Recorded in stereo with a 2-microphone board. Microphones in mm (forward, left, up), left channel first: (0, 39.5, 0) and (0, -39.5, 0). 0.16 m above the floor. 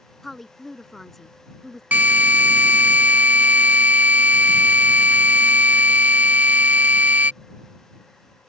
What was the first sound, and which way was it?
A woman speaking, 5° left (ahead or behind).